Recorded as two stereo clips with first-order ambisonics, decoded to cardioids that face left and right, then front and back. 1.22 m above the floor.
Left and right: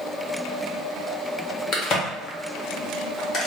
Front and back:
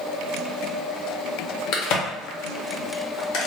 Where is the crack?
35° left, 0.8 m.